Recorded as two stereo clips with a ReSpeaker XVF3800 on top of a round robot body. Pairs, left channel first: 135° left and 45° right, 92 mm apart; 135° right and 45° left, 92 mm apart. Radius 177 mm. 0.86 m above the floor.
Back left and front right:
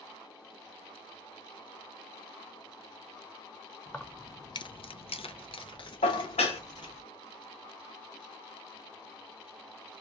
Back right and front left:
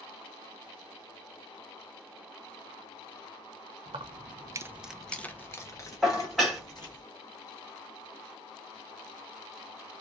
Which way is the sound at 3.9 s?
55° left.